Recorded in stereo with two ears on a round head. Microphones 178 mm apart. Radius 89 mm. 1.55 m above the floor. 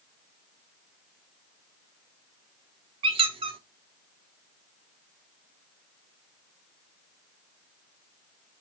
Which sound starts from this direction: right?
A squeak, at 3.0 s.